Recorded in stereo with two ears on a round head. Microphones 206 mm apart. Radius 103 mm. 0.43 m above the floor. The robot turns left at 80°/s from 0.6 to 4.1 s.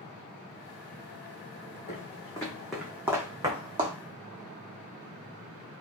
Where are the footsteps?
40° left (ahead or behind), 1.4 m; by 4.0 s 30° right (ahead or behind), 1.0 m.